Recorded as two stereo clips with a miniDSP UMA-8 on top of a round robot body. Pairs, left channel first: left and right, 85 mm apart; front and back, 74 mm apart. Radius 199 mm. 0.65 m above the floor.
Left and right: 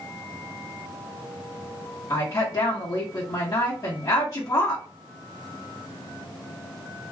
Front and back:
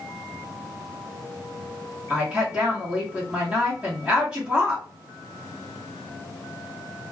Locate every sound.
2.1 s a woman speaking: 110° left, 1.5 m